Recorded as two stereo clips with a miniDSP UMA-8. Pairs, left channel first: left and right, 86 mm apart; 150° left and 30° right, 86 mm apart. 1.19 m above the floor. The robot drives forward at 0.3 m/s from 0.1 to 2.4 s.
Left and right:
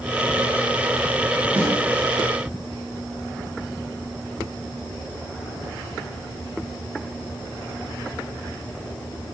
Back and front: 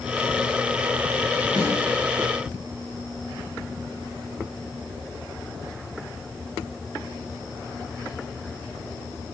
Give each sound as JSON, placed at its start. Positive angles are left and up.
{"t": 1.6, "sound": "a snare drum", "azimuth_deg": -160, "distance_m": 4.0}